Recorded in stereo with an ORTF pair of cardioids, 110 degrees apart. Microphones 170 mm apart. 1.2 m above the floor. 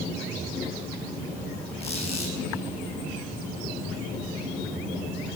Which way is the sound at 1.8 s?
35° left.